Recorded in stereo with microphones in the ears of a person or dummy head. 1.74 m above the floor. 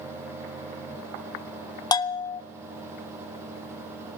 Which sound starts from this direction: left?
A bell, at 1.9 s.